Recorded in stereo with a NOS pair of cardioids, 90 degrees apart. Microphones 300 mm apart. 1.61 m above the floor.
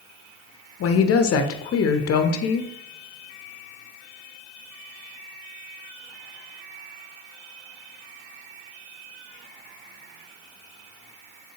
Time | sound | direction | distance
0.8 | a woman speaking | 50° left | 0.6 m